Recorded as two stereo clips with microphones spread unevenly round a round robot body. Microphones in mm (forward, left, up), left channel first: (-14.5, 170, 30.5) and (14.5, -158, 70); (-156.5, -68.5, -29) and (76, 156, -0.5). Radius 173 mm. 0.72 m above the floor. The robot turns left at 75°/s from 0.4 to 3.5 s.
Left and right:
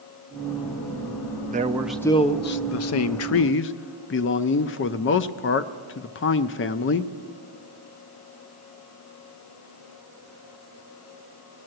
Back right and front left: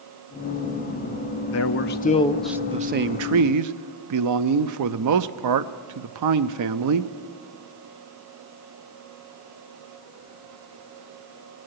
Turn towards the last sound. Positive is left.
turn(degrees=60)